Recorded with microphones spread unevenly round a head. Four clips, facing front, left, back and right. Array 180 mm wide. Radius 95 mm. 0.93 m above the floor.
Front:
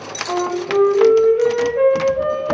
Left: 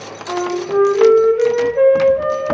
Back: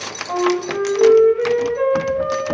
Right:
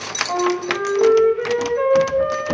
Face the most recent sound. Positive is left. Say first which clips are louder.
# left 2 dB, back 1 dB
turn(degrees=55)